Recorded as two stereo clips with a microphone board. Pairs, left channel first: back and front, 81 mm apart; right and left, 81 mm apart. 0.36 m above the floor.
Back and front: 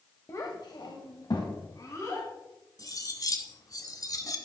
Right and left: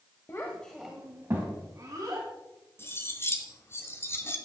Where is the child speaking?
135° right, 1.2 m; by 2.3 s 130° left, 3 m.